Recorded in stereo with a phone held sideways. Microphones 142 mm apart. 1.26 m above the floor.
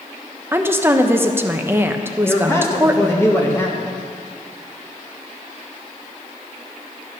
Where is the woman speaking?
15° right (ahead or behind), 1.0 m.